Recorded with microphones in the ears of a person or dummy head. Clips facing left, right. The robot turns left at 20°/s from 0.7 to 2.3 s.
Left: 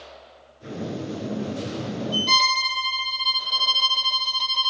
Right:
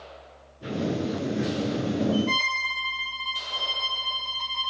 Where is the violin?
45° left (ahead or behind), 0.9 m.